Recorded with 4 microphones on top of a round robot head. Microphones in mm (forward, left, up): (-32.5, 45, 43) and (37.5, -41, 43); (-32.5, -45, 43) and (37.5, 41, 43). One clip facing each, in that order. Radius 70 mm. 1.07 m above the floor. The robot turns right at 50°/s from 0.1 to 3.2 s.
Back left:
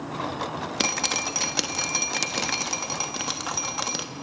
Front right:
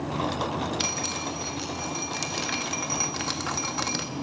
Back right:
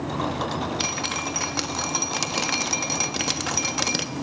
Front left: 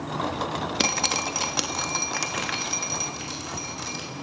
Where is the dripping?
90° left, 1.2 m; by 4.0 s 150° right, 1.2 m.